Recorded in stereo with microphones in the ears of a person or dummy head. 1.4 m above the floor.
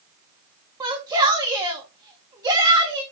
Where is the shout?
15° right (ahead or behind), 1.9 m.